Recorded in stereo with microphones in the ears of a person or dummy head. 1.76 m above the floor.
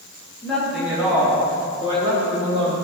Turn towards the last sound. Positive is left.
turn(degrees=-40)  # may be behind; listen again after turning